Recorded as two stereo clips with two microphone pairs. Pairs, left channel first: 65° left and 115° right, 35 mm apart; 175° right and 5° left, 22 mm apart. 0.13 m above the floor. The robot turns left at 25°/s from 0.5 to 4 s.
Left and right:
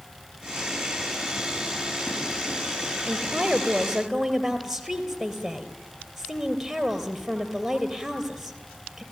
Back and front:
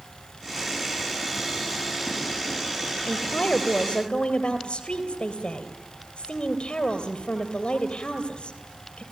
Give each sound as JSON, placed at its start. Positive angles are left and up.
{"t": 3.1, "sound": "a woman speaking", "azimuth_deg": -175, "distance_m": 3.0}